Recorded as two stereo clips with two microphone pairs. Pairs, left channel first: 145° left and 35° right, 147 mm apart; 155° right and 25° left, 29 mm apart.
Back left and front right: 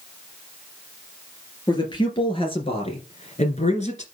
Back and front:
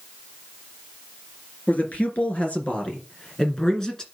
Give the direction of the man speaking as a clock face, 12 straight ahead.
5 o'clock.